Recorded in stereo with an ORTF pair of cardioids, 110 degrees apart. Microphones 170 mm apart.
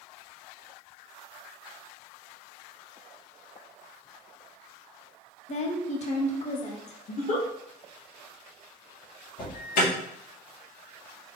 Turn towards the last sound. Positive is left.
turn(degrees=60)